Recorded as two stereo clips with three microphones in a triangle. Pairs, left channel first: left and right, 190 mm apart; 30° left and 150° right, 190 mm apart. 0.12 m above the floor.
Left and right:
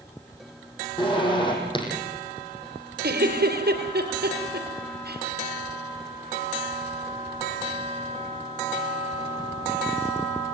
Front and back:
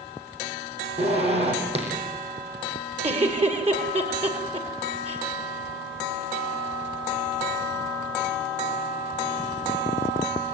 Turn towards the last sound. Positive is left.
turn(degrees=-100)